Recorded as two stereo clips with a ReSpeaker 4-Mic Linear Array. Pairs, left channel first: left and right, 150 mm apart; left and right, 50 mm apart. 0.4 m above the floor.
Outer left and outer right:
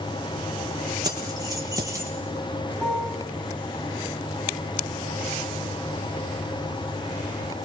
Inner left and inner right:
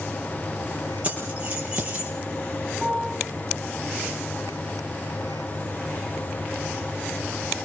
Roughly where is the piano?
Centre.